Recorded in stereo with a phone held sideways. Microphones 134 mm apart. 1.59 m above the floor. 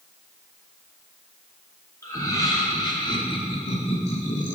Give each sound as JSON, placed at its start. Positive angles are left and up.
{"t": 2.0, "sound": "laughter", "side_deg": 20, "distance_m": 4.0}